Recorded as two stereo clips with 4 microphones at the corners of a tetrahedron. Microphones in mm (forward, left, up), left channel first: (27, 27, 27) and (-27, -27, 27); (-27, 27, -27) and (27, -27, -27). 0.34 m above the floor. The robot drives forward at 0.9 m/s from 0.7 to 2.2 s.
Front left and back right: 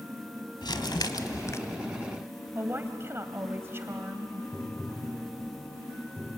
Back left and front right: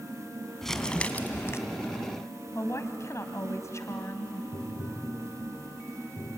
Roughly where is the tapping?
Behind left.